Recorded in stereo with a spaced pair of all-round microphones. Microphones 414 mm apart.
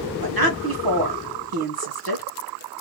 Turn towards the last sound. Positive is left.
turn(degrees=-55)  # may be behind; listen again after turning